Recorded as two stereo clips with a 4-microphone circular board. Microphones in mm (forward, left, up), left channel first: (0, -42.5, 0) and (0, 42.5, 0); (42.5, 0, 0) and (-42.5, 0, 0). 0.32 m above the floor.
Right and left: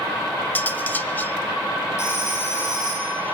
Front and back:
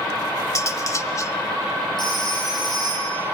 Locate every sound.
0.6 s cutlery clinking: 30° right, 1.0 m
2.0 s a phone ringing: 30° right, 7.5 m